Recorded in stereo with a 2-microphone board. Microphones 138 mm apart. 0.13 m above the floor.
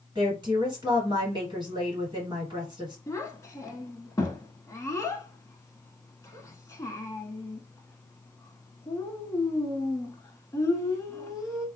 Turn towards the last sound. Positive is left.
turn(degrees=20)  # may be behind; listen again after turning